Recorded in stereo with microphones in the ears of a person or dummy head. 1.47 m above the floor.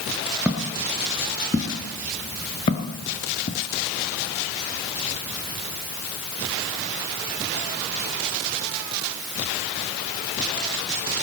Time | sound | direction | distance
0.5 | footsteps | 5° right (ahead or behind) | 1.6 m